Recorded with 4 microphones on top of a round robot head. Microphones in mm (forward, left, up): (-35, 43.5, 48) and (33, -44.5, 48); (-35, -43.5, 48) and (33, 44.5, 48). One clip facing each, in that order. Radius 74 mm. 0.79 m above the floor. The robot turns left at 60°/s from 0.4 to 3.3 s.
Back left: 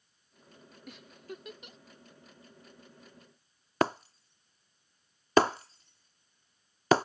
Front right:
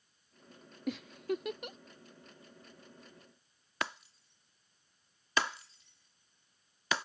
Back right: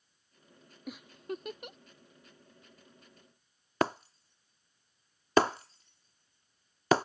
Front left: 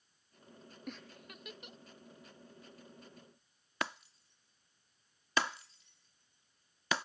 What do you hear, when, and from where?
0.9 s a giggle: 45° right; by 1.8 s 100° right
3.8 s breaking glass: straight behind